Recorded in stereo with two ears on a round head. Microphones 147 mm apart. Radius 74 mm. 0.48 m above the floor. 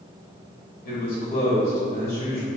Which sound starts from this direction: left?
A man speaking, at 0.8 s.